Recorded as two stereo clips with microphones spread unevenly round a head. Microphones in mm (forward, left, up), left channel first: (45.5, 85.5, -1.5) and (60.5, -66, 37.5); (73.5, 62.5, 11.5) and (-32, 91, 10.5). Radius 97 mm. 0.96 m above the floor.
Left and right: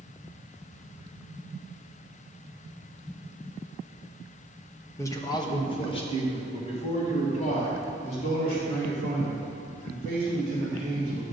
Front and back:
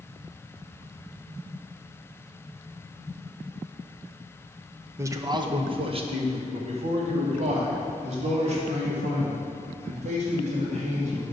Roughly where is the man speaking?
Behind left.